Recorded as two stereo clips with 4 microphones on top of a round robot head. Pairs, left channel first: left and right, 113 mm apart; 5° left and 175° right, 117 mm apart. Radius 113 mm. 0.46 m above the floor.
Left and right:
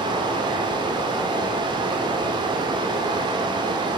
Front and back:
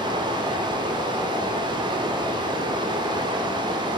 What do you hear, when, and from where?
0.0 s running water: 130° right, 0.9 m